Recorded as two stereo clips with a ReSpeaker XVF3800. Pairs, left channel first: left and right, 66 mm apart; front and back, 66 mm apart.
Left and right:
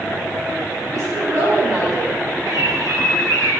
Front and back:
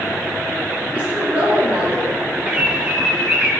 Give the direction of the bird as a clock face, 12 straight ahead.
4 o'clock.